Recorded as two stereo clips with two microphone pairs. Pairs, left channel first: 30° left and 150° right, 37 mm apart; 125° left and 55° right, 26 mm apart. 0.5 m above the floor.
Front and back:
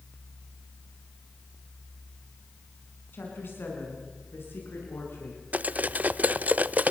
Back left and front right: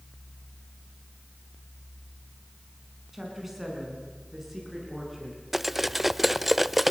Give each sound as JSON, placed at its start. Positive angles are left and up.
{"t": 3.1, "sound": "a woman speaking", "azimuth_deg": 30, "distance_m": 6.0}
{"t": 5.5, "sound": "cutlery clinking", "azimuth_deg": -135, "distance_m": 0.5}